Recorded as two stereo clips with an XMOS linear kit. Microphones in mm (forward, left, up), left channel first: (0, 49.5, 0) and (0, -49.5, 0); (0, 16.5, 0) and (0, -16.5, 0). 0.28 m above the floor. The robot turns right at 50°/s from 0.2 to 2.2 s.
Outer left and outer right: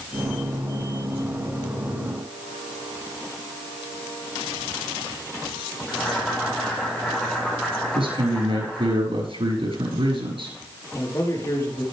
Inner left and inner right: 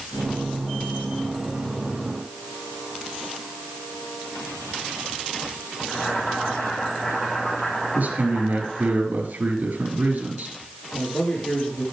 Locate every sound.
5.9 s boiling: 10° left (ahead or behind), 2.5 m
8.0 s a man speaking: 65° right (ahead or behind), 5.5 m
10.9 s a man speaking: 35° left (ahead or behind), 5.5 m